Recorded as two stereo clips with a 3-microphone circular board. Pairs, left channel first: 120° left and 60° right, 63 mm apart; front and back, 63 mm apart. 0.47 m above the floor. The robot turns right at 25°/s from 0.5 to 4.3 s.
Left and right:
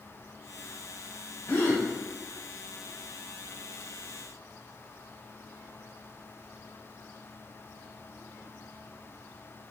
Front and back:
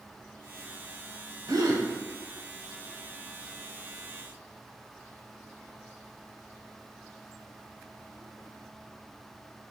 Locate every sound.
1.5 s a gasp: 170° left, 0.7 m; by 1.9 s 175° left, 0.7 m